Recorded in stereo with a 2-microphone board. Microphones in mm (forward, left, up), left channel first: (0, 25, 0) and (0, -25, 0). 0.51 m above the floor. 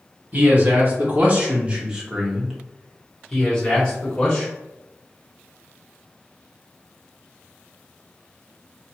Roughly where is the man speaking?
Right.